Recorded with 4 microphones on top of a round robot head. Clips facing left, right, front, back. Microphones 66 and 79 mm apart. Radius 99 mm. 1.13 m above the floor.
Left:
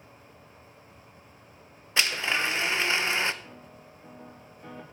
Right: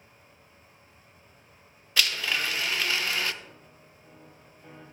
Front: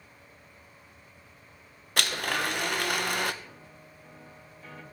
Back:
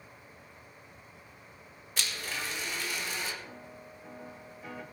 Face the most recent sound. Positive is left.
turn(degrees=105)